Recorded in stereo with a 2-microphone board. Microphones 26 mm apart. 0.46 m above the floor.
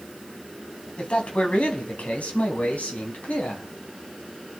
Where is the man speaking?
50° left (ahead or behind), 3 m; by 3.7 s 75° left (ahead or behind), 3.5 m.